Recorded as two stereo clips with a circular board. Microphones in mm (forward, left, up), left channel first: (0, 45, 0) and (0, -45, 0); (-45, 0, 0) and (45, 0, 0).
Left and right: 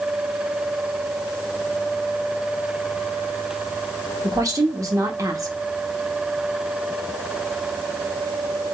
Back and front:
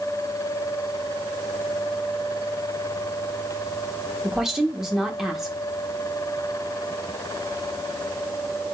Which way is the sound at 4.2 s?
80° right.